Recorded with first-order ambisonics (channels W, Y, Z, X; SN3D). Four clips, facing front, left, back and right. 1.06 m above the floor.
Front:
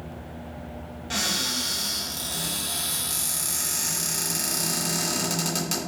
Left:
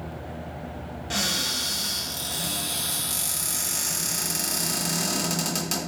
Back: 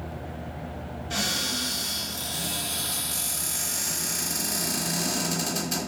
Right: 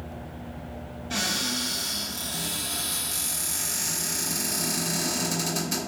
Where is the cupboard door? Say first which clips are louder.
Left 1 dB, front 1 dB; 55° left, 1.8 m.